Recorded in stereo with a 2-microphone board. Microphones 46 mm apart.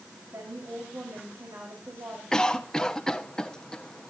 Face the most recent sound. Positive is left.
turn(degrees=15)  # may be behind; listen again after turning